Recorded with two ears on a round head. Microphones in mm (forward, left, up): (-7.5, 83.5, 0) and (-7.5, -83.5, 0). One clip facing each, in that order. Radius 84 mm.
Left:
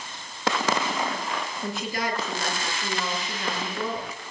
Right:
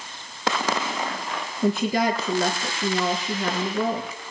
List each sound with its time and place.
1.6 s a woman speaking: 80° right, 7.5 m